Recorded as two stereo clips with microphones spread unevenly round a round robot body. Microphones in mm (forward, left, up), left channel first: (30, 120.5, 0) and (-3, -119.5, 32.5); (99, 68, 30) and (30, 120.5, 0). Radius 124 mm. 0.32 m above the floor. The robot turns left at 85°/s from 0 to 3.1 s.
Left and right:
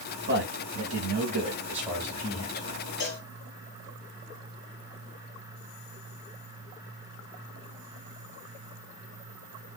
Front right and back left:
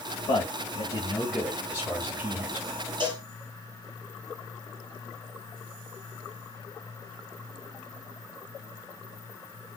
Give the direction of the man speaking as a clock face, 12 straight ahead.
2 o'clock.